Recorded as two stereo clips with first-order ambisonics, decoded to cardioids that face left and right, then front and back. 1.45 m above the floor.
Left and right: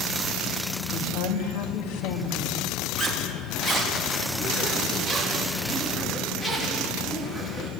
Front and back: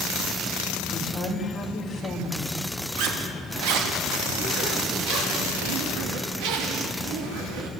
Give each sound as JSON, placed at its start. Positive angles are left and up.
{"t": 0.9, "sound": "a woman speaking", "azimuth_deg": 80, "distance_m": 2.5}
{"t": 3.0, "sound": "a zipper", "azimuth_deg": 175, "distance_m": 3.0}